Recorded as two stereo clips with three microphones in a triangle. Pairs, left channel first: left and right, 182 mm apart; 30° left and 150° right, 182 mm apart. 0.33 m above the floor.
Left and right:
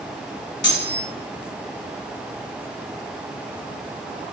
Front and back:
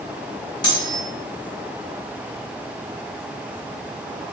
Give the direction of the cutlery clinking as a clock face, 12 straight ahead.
9 o'clock.